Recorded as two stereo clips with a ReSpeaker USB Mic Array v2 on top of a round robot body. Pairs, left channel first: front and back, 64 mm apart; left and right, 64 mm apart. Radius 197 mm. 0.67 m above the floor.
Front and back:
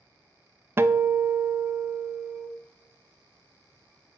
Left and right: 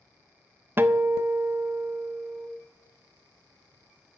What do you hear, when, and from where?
0.8 s a guitar: 135° right, 0.8 m